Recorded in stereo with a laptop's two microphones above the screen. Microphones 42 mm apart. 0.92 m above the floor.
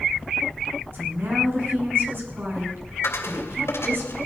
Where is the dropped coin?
85° left, 2.0 m.